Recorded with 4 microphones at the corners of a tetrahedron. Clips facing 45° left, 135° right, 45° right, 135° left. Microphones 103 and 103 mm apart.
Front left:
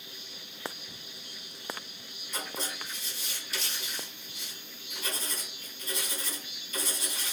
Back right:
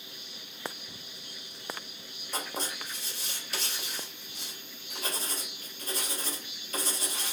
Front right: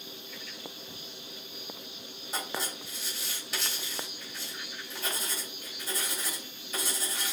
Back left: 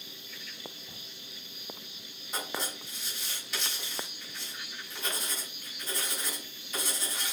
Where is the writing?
130° right, 2.5 m.